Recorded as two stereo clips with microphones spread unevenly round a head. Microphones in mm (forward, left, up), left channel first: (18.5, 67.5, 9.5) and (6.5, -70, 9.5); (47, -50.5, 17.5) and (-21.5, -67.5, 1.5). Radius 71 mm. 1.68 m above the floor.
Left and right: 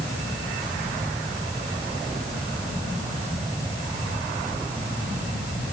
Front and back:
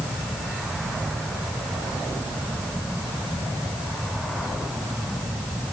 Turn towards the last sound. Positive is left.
No sound to turn to.